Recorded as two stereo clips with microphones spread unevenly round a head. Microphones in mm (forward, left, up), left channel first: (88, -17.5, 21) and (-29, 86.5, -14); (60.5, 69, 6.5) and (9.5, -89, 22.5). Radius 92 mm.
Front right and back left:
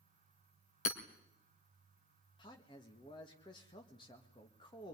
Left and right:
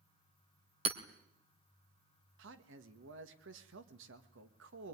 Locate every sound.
0.8 s hammering: 65° right, 2.0 m
2.4 s a man speaking: 110° right, 2.0 m